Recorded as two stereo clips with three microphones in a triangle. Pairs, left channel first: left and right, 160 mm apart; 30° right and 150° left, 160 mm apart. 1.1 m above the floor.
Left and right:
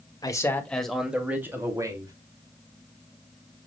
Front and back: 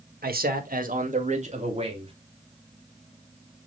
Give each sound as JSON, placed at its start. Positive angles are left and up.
{"t": 0.2, "sound": "a man speaking", "azimuth_deg": 155, "distance_m": 1.7}